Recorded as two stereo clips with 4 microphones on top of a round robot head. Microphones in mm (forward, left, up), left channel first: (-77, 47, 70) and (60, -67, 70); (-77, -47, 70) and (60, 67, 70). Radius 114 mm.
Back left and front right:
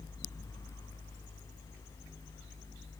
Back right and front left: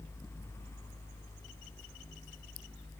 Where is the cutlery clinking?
I don't hear cutlery clinking.